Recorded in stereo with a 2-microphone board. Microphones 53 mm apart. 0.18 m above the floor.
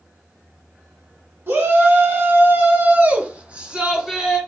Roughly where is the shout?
Right.